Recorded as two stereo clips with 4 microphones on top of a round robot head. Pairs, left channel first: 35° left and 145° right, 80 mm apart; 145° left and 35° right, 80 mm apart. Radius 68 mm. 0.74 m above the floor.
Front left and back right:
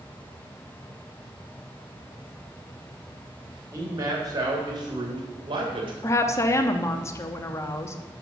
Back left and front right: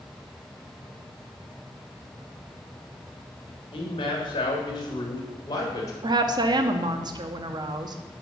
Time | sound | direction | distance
3.7 | a man speaking | 165° left | 2.5 m
6.0 | a woman speaking | 15° right | 1.0 m